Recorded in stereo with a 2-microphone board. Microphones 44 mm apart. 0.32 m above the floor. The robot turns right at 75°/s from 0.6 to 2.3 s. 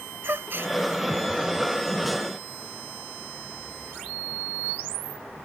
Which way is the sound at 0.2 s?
60° right (ahead or behind).